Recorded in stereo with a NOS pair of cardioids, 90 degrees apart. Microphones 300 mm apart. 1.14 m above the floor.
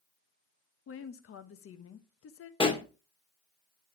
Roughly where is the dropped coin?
No dropped coin in this recording.